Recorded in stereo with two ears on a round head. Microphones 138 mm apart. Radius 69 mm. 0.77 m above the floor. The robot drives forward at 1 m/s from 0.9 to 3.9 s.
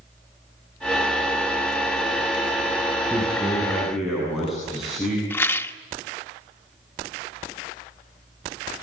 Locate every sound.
3.1 s a man speaking: centre (ahead or behind), 7.5 m
5.3 s a rattle: 15° left (ahead or behind), 1.1 m